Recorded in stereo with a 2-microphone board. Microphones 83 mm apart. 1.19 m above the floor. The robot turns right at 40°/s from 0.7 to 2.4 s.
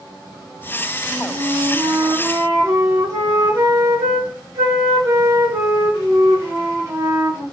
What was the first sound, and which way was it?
A flute, 90° right.